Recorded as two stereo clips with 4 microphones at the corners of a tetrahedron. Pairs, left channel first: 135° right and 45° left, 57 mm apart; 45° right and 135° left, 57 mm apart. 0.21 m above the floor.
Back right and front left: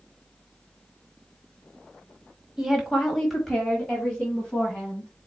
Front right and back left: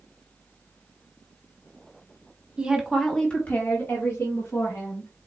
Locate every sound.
2.6 s a woman speaking: 110° left, 1.2 m; by 5.1 s 55° right, 2.5 m